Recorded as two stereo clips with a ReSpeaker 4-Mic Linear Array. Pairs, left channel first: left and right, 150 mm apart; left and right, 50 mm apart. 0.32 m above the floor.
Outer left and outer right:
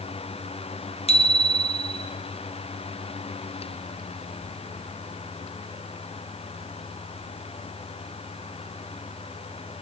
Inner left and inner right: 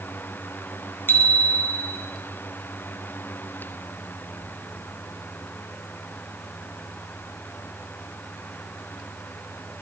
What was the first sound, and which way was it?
A bicycle bell, 45° left (ahead or behind).